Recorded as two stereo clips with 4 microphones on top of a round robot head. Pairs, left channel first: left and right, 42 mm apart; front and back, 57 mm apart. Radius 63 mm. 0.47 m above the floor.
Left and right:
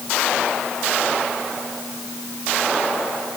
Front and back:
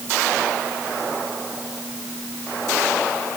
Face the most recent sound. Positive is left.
No sound to turn to.